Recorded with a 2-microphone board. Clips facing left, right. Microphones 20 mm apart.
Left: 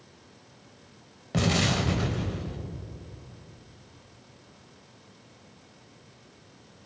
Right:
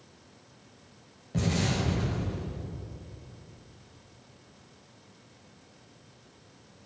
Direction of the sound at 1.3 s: 45° left (ahead or behind).